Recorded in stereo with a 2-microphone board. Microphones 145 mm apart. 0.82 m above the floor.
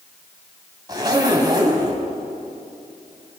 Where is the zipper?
25° right (ahead or behind), 3.5 m.